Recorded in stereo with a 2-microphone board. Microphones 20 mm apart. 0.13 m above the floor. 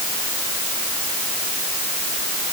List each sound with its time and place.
Only background noise.